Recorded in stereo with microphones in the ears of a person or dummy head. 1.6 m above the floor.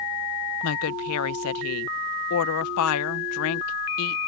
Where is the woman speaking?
80° left.